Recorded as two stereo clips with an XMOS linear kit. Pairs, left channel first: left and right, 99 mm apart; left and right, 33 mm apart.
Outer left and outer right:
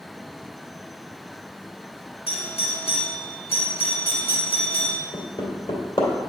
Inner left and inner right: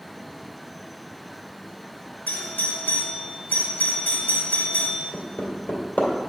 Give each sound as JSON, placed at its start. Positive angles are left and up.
{"t": 2.3, "sound": "a doorbell", "side_deg": 80, "distance_m": 2.0}
{"t": 5.1, "sound": "hammering", "side_deg": 60, "distance_m": 2.0}